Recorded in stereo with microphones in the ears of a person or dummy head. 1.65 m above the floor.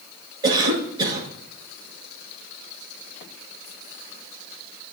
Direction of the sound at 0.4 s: 20° right (ahead or behind).